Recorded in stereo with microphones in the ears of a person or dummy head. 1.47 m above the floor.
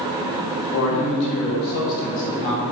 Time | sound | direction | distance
0.7 | a man speaking | 75° left (ahead or behind) | 3 m